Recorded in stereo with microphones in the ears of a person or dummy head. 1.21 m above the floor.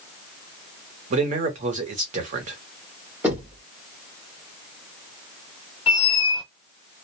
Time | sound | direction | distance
1.1 | a man speaking | 45° right (ahead or behind) | 0.9 m
3.2 | knocking | 10° right (ahead or behind) | 0.9 m
5.9 | a squeak | 30° left (ahead or behind) | 0.6 m